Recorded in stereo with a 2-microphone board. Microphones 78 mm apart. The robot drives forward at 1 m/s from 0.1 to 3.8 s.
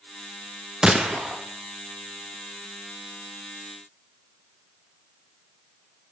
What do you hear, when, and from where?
0.8 s a gunshot: 5° right (ahead or behind), 0.8 m